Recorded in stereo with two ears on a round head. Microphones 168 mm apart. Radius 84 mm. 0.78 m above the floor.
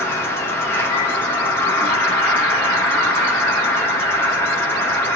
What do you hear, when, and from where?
0.0 s an insect: 15° left (ahead or behind), 1.0 m